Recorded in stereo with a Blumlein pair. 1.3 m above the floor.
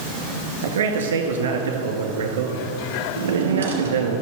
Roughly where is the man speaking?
Ahead right.